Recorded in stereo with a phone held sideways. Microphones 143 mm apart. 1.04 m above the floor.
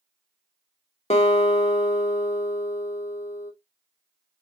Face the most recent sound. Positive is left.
turn(degrees=50)  # may be behind; listen again after turning